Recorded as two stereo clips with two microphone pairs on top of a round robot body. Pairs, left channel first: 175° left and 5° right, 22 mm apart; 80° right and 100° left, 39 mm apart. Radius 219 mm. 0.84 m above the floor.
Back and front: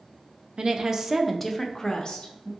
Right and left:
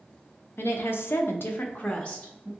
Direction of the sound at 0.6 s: 50° right.